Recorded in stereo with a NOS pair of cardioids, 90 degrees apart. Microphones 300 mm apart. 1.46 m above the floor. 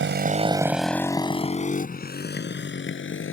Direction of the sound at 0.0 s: 45° right.